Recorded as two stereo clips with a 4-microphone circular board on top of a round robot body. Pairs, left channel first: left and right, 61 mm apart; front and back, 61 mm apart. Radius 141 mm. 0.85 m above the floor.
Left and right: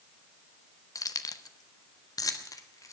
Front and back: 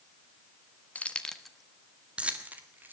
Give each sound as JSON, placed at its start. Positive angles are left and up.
{"t": 0.9, "sound": "keys jangling", "azimuth_deg": 65, "distance_m": 1.2}